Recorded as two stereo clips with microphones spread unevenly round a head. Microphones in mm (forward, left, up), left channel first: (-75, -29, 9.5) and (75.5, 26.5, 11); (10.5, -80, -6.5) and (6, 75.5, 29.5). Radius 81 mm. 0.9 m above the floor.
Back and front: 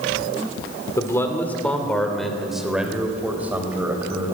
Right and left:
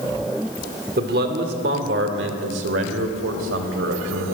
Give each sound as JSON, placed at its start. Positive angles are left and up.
{"t": 1.0, "sound": "a man speaking", "azimuth_deg": 125, "distance_m": 2.0}